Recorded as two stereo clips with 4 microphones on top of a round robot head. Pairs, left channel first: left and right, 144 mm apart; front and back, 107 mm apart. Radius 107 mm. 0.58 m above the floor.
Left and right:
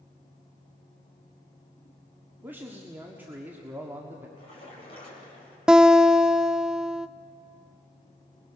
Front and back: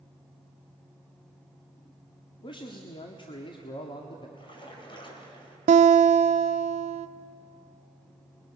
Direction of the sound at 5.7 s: 175° right.